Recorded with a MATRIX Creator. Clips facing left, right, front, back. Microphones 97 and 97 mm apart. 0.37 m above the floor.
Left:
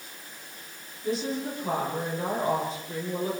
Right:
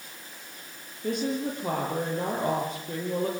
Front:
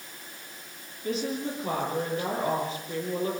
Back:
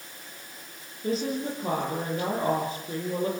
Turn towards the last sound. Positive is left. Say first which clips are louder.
# right 1 dB, back 2 dB
turn(degrees=-125)